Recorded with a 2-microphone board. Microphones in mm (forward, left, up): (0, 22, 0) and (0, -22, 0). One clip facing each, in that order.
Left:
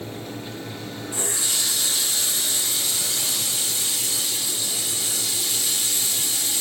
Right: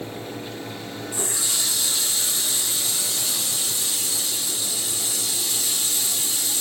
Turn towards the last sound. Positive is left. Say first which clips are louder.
# left 1 dB
turn(degrees=30)  # may be behind; listen again after turning